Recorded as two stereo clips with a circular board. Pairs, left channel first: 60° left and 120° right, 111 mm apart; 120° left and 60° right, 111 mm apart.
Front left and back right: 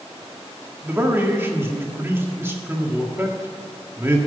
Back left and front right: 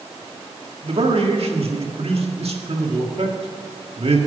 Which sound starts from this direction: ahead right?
A man speaking, at 0.8 s.